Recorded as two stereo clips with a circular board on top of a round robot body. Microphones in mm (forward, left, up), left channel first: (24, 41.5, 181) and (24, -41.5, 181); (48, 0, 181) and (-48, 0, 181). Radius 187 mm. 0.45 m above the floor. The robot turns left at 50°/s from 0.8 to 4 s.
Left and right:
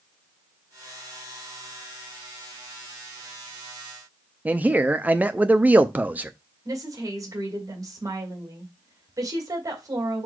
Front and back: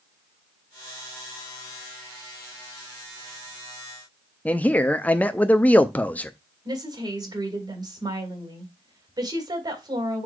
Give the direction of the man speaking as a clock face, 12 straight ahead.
2 o'clock.